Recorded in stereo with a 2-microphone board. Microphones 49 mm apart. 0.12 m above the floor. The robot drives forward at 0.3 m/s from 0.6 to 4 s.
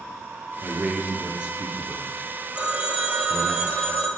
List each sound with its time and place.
0.6 s a man speaking: 15° right (ahead or behind), 1.7 m; by 3.5 s 25° right (ahead or behind), 1.2 m
2.5 s a phone ringing: 25° right (ahead or behind), 1.8 m; by 4.1 s 30° right (ahead or behind), 1.4 m